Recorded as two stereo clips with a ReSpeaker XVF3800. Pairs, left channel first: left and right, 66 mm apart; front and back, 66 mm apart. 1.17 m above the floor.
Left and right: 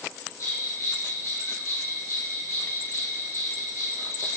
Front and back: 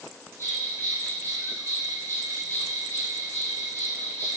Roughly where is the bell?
Ahead left.